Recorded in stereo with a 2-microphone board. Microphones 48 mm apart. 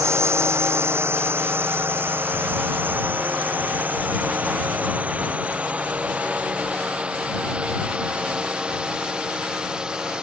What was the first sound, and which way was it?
A drone, 65° right (ahead or behind).